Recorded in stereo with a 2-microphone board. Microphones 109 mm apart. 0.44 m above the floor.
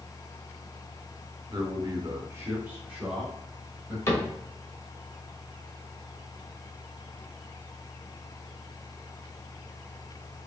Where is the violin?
I don't hear a violin.